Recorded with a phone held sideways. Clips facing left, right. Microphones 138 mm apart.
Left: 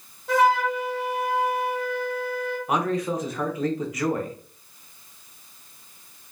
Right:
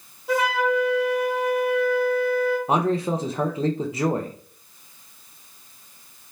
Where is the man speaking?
30° right (ahead or behind), 0.8 m.